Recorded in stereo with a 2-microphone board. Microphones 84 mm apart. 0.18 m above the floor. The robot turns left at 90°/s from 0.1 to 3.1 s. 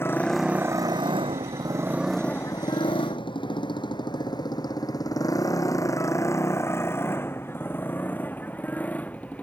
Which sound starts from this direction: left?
A motorcycle, at 0.0 s.